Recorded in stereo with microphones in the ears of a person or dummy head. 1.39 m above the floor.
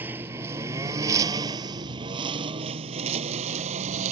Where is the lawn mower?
10° right (ahead or behind); by 4.1 s 40° right (ahead or behind).